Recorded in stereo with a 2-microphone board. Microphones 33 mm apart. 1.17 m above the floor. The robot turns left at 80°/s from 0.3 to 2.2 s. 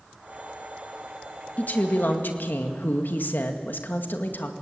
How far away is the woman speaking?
About 1.9 m.